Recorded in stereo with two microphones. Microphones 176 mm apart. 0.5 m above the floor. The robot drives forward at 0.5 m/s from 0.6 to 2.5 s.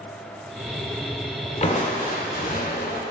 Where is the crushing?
40° left (ahead or behind), 0.9 m; by 3.0 s 55° left (ahead or behind), 0.8 m.